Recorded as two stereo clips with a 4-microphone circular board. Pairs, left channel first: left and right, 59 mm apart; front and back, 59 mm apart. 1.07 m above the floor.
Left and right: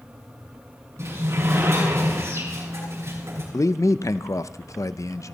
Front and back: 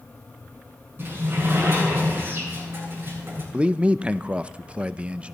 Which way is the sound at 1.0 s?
130° right.